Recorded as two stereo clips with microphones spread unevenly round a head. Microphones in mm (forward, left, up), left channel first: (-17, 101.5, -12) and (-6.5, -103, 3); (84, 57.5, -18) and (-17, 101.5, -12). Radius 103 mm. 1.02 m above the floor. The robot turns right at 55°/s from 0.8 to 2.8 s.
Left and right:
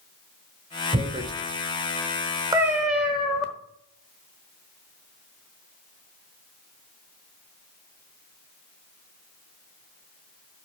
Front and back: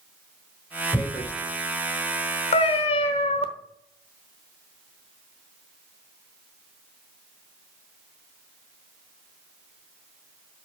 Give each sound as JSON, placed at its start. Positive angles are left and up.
{"t": 0.9, "sound": "tearing paper", "azimuth_deg": -65, "distance_m": 0.8}
{"t": 2.5, "sound": "a cat meowing", "azimuth_deg": -20, "distance_m": 1.0}